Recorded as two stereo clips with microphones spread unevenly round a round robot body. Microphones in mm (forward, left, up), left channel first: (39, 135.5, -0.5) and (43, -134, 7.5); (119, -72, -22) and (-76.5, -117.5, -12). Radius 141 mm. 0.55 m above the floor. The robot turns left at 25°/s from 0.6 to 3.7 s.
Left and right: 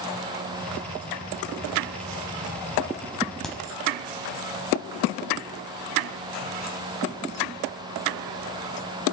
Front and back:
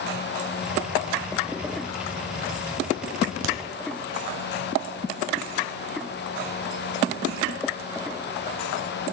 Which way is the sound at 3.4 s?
Straight behind.